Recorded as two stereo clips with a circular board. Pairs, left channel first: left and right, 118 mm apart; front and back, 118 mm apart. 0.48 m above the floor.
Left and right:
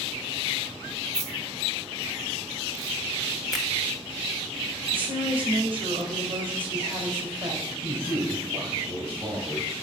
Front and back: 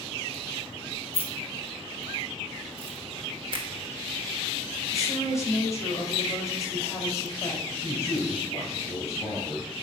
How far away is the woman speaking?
About 2.5 m.